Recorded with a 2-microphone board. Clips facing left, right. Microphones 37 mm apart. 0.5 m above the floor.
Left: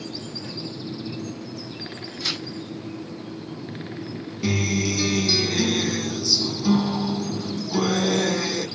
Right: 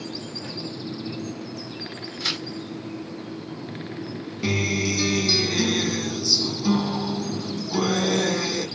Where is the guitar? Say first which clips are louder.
Even; 10° right (ahead or behind), 0.9 m.